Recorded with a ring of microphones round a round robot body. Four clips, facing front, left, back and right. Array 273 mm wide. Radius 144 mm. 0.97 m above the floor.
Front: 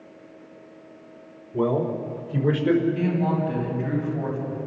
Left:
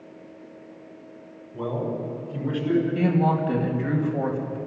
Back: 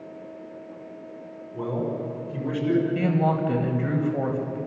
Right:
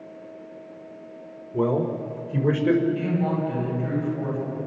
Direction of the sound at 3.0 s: 155° left.